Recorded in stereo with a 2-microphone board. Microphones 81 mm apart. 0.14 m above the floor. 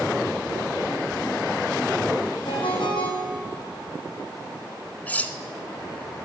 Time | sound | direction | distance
2.5 | a ringtone | 80° left | 4 m
5.1 | cutlery clinking | 20° left (ahead or behind) | 0.7 m